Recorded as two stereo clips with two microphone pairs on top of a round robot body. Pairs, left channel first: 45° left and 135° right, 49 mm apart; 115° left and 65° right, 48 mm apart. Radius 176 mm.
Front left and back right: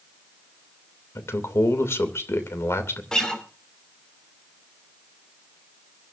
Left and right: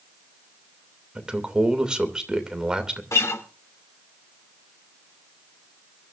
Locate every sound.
1.1 s a man speaking: 15° left, 2.5 m
3.1 s a guitar: 125° left, 2.5 m